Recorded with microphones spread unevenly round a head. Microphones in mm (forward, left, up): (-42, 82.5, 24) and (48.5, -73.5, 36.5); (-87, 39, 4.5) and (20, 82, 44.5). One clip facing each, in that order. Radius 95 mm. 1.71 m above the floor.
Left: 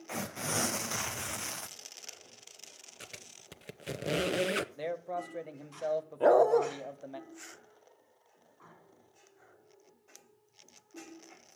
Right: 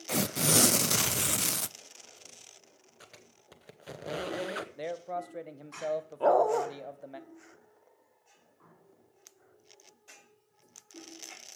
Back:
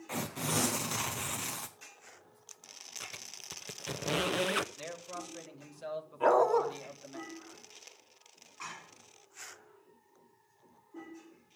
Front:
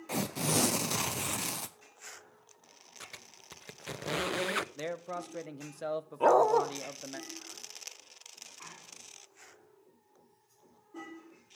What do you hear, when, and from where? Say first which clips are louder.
0.1 s tearing paper: right 8 dB, front 3 dB; 25° right, 0.5 m
3.0 s a squeak: left 4 dB, back 2 dB; 85° left, 0.6 m
4.8 s a man speaking: even, front 5 dB; 30° left, 1.3 m
6.2 s a dog barking: left 2 dB, front 2 dB; 50° left, 1.6 m